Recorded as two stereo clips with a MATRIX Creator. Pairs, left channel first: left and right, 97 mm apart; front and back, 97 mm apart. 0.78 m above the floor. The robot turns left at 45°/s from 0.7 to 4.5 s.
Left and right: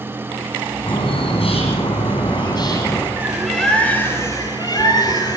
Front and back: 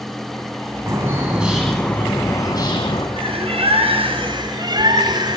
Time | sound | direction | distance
0.9 | a bird | 125° left | 9.5 m
3.2 | a bird | 165° right | 4 m